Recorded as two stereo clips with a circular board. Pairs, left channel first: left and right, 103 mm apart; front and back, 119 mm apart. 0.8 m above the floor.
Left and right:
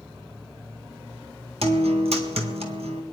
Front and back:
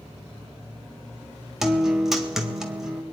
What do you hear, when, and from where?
1.6 s a guitar: 95° right, 1.8 m